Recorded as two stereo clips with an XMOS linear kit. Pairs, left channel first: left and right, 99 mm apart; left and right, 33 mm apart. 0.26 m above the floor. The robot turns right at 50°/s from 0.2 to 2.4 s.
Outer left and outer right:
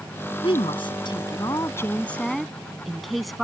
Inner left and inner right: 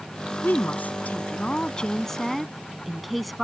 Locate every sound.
0.4 s a woman speaking: 80° left; by 3.4 s straight behind